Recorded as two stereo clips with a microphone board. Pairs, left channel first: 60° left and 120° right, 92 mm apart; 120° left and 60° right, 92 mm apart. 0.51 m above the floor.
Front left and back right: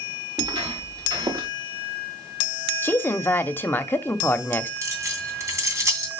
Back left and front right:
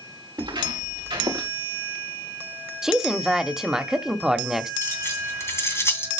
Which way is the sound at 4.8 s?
Straight behind.